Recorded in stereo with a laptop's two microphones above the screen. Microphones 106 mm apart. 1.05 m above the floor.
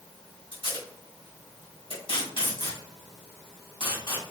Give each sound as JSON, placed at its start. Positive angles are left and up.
{"t": 0.5, "sound": "tape being pulled", "side_deg": 50, "distance_m": 1.3}